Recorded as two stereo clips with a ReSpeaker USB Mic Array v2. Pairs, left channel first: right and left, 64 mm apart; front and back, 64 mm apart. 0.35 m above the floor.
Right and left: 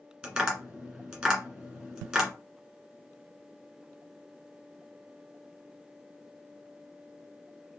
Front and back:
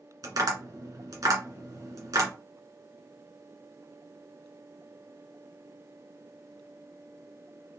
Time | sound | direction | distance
0.2 | tapping | 165° left | 2.0 m